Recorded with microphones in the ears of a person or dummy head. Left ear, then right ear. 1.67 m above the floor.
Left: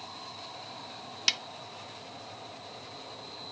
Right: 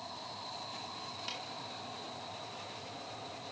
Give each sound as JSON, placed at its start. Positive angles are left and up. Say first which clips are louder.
{"t": 1.3, "sound": "a snare drum", "louder": "left 16 dB", "side_deg": 60, "distance_m": 0.6}